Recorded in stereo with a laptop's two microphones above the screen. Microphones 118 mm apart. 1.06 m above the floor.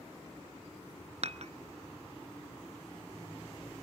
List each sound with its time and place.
1.2 s dishes clattering: 65° right (ahead or behind), 0.6 m